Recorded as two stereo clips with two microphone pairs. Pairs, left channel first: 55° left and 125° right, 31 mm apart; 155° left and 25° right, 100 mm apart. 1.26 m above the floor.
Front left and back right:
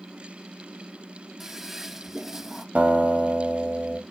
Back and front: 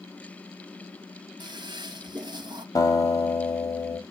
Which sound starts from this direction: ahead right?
A toilet flushing, at 1.4 s.